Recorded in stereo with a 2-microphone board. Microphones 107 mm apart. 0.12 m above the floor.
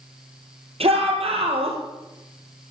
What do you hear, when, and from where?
0.8 s a shout: 65° right (ahead or behind), 4 m